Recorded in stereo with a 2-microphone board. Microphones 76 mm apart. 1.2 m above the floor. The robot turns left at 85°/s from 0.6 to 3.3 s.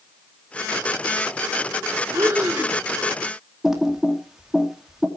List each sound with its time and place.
2.1 s breathing: 135° right, 4.5 m; by 2.8 s 170° left, 4.5 m
3.6 s typing on a keyboard: 5° right (ahead or behind), 2.5 m